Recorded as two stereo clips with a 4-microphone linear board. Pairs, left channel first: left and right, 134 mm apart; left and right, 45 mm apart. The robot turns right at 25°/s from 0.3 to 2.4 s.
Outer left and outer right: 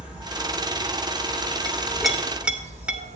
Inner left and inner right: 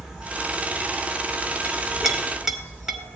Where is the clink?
10° left (ahead or behind), 1.6 m; by 3.0 s 10° right (ahead or behind), 1.6 m.